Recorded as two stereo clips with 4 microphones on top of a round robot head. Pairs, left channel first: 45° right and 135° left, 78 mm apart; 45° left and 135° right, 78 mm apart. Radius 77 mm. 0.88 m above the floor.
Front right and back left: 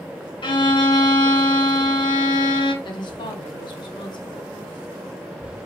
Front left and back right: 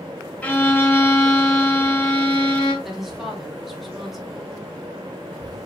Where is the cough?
I don't hear a cough.